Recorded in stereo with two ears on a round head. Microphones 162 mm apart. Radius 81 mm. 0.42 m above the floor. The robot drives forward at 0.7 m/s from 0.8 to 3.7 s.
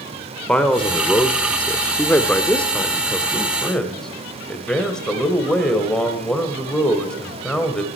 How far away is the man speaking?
About 1.1 m.